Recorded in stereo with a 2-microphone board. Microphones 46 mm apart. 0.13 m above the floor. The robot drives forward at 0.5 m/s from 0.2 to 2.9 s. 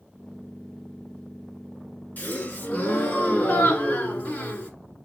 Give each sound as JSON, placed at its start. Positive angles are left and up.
{"t": 2.2, "sound": "a gasp", "side_deg": 40, "distance_m": 1.6}